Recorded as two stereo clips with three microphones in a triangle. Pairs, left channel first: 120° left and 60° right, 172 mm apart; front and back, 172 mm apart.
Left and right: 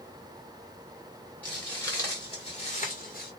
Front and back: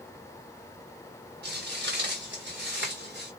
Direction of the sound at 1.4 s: 160° right.